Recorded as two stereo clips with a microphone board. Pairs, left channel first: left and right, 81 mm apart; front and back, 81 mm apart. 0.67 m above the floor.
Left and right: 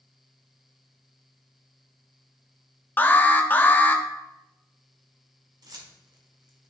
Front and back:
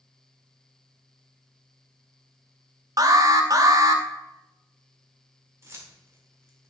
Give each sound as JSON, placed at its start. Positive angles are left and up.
{"t": 3.0, "sound": "an alarm", "azimuth_deg": 150, "distance_m": 0.7}
{"t": 5.6, "sound": "keys jangling", "azimuth_deg": -125, "distance_m": 1.4}